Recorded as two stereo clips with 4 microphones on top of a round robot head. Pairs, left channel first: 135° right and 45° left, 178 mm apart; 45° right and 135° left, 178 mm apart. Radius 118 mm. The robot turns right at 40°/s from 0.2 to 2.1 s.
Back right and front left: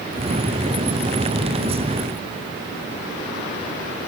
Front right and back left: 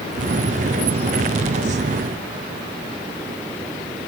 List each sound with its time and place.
Only background noise.